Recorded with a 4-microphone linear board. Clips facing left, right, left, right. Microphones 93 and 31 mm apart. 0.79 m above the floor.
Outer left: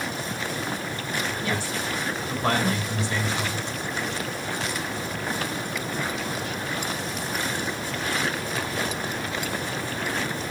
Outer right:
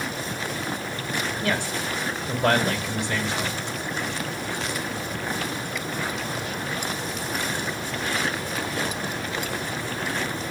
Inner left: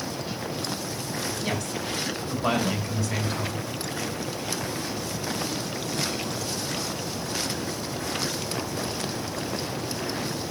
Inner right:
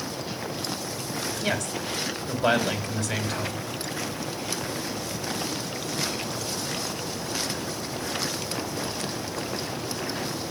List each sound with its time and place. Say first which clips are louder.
1.4 s a woman speaking: outer right 2 dB, inner right 1 dB; 75° right (ahead or behind), 3.5 m